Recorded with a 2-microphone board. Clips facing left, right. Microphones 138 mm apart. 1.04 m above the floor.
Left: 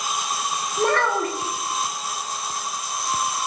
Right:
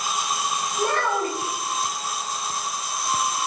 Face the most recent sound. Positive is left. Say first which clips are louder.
# left 3 dB
turn(degrees=80)